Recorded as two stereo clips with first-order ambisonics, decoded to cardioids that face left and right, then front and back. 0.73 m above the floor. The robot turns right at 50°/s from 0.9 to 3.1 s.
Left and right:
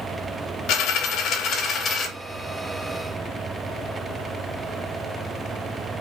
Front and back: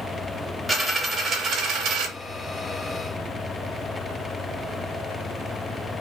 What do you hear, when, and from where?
0.7 s a dropped coin: 105° left, 0.6 m; by 2.1 s 165° left, 0.6 m